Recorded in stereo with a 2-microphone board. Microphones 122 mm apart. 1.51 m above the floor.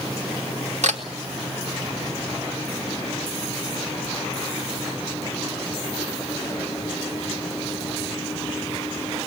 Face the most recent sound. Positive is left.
turn(degrees=-80)